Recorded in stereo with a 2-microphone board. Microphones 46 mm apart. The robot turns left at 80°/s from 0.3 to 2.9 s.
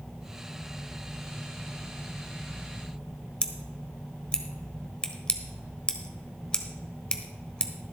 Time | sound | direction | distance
3.4 | scissors | 20° left (ahead or behind) | 1.1 m